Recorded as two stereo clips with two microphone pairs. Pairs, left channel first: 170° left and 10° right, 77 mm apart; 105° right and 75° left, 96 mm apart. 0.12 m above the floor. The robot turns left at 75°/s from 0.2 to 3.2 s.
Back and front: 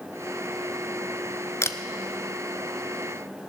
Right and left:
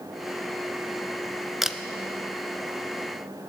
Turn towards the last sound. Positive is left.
turn(degrees=45)